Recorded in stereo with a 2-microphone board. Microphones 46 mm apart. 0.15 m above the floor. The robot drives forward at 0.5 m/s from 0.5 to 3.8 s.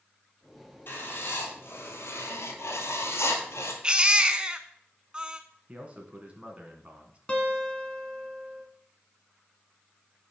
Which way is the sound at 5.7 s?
25° right (ahead or behind).